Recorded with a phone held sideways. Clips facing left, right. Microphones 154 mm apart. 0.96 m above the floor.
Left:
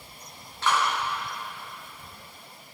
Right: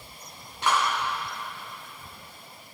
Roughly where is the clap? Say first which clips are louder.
Even; centre.